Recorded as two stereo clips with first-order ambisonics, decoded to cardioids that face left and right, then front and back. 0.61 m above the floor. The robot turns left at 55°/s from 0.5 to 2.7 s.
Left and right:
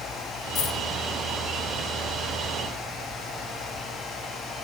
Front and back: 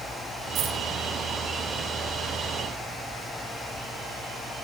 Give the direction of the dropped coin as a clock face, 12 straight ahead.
8 o'clock.